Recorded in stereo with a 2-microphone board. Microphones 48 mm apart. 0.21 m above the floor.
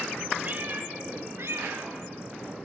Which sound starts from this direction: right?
A cat meowing, at 0.4 s.